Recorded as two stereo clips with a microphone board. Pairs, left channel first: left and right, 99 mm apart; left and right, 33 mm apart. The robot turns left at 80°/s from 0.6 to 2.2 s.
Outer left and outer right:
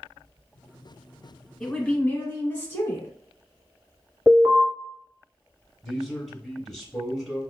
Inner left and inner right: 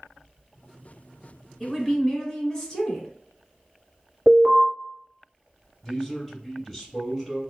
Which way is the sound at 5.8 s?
Centre (ahead or behind).